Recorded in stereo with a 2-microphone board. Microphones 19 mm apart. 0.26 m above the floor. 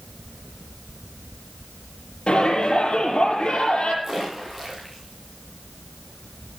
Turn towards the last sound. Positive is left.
turn(degrees=-10)  # may be behind; listen again after turning